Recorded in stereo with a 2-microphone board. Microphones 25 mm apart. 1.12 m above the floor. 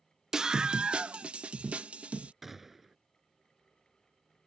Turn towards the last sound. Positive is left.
turn(degrees=-15)  # may be behind; listen again after turning